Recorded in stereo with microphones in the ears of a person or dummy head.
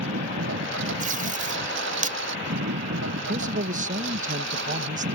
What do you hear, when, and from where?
0.0 s a lawn mower: 70° right (ahead or behind)
1.0 s tape being pulled: 45° right (ahead or behind)
3.1 s a man speaking: 40° right (ahead or behind)